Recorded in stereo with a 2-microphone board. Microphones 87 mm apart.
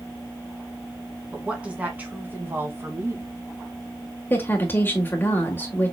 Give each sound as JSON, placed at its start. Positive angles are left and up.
{"t": 1.3, "sound": "a woman speaking", "side_deg": -10, "distance_m": 2.5}
{"t": 4.3, "sound": "a woman speaking", "side_deg": 25, "distance_m": 1.4}